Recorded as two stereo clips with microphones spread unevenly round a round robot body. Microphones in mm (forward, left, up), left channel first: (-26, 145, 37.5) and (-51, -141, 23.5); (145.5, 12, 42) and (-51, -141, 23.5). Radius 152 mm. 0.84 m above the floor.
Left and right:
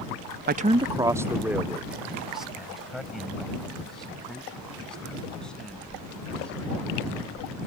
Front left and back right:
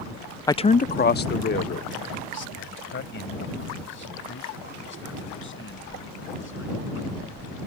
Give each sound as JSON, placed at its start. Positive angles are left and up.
{"t": 0.5, "sound": "a man speaking", "azimuth_deg": -40}